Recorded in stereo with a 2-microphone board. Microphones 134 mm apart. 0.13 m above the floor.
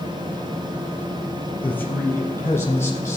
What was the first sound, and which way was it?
A man speaking, 10° left (ahead or behind).